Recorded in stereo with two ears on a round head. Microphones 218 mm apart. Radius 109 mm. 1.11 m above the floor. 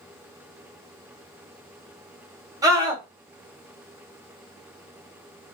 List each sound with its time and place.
2.6 s a scream: 15° right (ahead or behind), 1.1 m